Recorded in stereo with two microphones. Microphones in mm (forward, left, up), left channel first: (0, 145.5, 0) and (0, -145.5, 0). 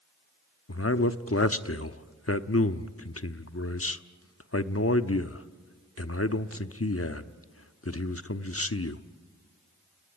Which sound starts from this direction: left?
A man speaking, at 0.7 s.